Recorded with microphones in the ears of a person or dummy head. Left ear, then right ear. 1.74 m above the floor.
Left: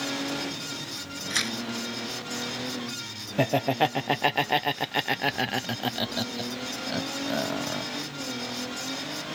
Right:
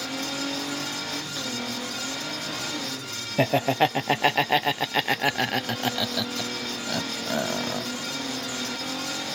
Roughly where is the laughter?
Centre.